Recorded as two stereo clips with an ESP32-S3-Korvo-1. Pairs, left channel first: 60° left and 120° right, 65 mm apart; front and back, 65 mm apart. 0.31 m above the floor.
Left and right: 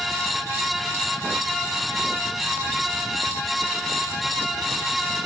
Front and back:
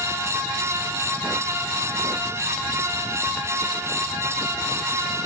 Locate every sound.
Only background noise.